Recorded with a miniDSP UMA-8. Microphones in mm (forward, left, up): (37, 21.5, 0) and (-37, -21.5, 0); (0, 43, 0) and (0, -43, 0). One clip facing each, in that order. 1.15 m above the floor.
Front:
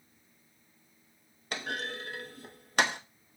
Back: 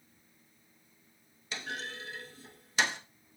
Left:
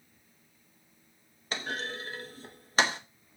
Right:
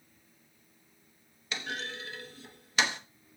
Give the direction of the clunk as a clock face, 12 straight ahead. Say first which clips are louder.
Front 4 dB, left 3 dB; 10 o'clock.